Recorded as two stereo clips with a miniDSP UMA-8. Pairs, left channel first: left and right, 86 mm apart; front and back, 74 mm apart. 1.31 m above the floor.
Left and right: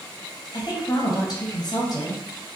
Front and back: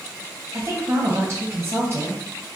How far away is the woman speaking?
About 0.7 m.